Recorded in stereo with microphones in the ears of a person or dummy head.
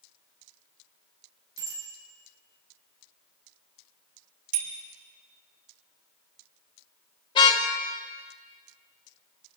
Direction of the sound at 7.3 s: 25° left (ahead or behind).